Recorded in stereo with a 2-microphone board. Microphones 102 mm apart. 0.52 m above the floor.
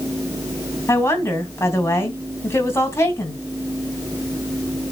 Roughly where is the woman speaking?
Left.